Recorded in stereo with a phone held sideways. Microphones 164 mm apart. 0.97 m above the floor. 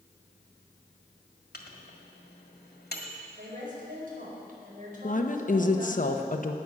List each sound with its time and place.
1.5 s a microwave: 85° left, 1.8 m
3.4 s a woman speaking: 60° right (ahead or behind), 4.5 m
5.0 s a woman speaking: 55° left (ahead or behind), 1.0 m